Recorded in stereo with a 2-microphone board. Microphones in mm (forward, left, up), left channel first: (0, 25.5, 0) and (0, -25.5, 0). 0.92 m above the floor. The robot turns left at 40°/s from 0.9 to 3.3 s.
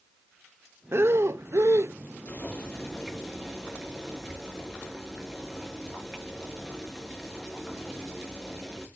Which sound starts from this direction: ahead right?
Breathing, at 0.9 s.